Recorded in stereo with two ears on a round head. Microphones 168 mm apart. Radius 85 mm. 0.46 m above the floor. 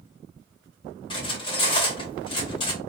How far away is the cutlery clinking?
About 0.9 m.